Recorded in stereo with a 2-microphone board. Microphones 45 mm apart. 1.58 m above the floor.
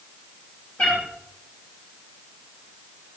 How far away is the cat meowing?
About 7.5 m.